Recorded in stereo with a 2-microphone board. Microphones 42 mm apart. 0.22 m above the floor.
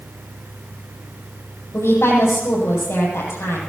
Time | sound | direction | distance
1.7 | a woman speaking | 75° left (ahead or behind) | 6 m